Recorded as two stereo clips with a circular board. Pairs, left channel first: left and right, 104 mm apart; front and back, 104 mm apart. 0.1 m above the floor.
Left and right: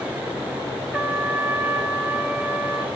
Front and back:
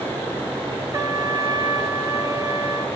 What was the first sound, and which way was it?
A trumpet, 160° right.